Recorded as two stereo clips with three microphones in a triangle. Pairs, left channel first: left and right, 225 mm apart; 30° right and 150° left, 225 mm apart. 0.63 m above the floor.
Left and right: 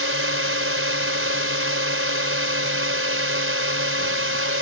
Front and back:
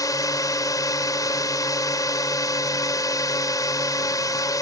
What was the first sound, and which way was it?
A drone, 105° right.